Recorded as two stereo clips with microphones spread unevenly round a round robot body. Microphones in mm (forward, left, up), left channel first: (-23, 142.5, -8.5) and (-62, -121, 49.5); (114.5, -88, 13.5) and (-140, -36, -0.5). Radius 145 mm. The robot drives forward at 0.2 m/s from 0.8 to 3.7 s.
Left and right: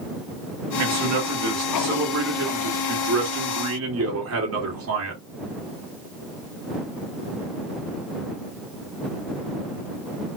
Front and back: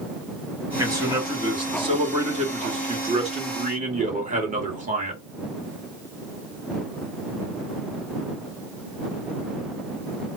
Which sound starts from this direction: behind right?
A man speaking, at 0.8 s.